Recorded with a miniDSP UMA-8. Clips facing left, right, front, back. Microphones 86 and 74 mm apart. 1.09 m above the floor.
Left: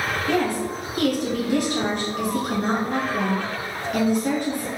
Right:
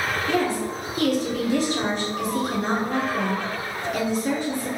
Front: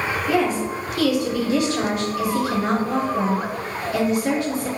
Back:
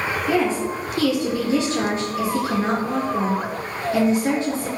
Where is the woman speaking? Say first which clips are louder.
Left 1 dB, even; 125° left, 1.1 m.